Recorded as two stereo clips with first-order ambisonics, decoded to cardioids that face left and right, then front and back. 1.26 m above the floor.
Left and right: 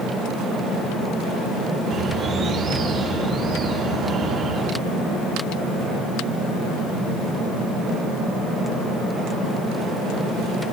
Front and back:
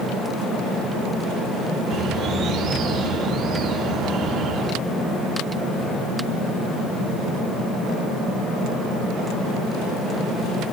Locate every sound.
1.9 s a bird: 145° right, 1.1 m